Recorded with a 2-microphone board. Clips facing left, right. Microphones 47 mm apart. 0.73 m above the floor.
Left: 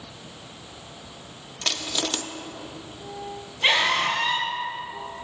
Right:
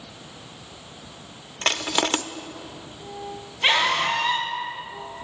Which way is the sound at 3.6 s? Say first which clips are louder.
Right 1 dB; centre (ahead or behind).